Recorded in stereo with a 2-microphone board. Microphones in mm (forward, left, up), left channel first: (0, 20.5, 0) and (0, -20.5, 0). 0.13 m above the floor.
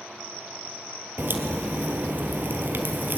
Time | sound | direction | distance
1.2 | a crack | 55° right (ahead or behind) | 1.7 m